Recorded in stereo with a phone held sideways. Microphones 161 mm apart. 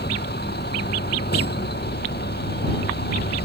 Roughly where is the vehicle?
Left.